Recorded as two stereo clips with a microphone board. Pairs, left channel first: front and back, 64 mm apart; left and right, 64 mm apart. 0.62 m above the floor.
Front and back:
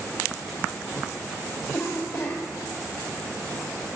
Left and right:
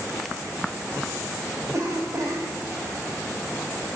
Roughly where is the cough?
Ahead right.